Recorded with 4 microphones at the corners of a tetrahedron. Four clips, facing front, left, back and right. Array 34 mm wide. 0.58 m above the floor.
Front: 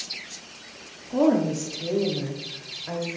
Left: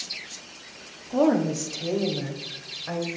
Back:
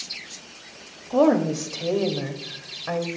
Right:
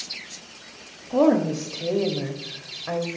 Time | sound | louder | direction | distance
1.1 | a woman speaking | right 2 dB, back 2 dB | 145° right | 0.9 m